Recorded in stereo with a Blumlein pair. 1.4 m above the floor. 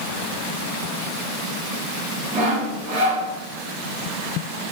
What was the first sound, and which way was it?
Sawing, 25° right.